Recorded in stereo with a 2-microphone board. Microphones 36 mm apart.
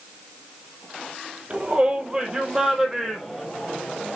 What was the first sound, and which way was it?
A shout, 30° right (ahead or behind).